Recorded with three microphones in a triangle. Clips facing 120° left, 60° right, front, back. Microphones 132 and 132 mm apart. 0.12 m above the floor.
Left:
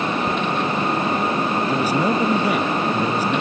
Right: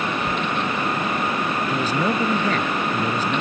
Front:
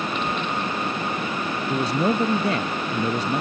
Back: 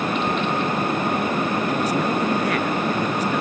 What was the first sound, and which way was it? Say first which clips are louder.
A man speaking: left 2 dB, back 1 dB; 45° left.